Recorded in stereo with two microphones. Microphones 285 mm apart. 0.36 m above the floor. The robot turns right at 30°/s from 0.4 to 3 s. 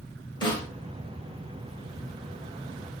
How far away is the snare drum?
About 2.5 m.